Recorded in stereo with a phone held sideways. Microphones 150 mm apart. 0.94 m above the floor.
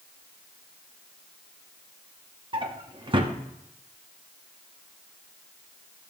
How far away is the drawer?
About 0.9 m.